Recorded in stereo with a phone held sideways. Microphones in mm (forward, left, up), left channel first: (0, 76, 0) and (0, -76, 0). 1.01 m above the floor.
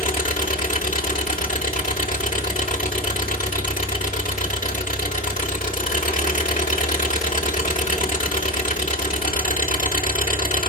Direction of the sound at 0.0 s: 60° left (ahead or behind).